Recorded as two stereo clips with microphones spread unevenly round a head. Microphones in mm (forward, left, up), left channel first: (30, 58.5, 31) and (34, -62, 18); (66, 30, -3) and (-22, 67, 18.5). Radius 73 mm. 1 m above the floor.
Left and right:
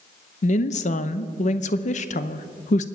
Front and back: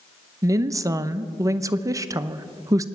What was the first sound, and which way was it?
A woman speaking, 95° left.